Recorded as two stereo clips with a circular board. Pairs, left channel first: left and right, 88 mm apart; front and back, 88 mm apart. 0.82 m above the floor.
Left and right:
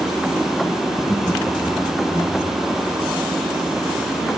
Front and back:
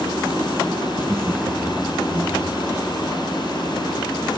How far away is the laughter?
About 1.2 m.